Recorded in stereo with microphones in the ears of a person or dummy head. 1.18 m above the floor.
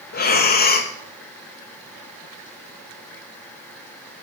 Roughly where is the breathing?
Left.